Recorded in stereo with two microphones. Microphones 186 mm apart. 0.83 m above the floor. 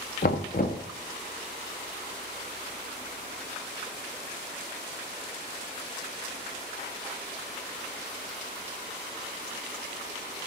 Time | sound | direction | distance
0.2 | knocking | 55° left (ahead or behind) | 0.7 m